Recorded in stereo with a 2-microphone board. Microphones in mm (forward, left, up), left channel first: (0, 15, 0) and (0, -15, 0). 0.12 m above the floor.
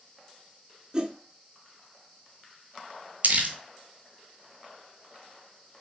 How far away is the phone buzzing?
No phone buzzing in this recording.